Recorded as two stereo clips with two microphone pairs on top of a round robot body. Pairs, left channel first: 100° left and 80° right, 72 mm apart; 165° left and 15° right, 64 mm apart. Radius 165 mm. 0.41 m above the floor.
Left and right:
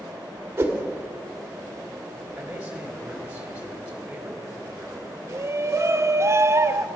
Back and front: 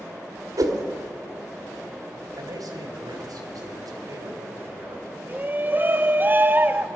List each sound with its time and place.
0.6 s a whoosh: 20° right, 1.5 m
2.4 s a man speaking: 5° right, 3.5 m
5.3 s a shout: 50° right, 1.1 m